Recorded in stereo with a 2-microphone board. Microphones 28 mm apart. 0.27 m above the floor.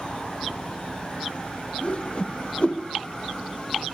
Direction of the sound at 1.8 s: 40° left (ahead or behind).